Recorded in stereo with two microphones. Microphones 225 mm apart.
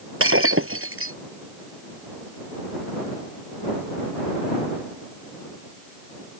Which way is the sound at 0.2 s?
70° right (ahead or behind).